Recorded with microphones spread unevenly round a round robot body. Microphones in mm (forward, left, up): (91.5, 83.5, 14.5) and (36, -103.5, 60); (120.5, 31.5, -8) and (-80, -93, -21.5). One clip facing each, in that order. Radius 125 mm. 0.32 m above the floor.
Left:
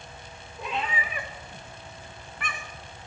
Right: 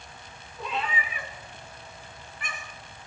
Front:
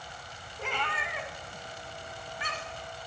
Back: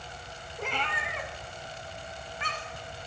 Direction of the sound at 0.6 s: 160° left.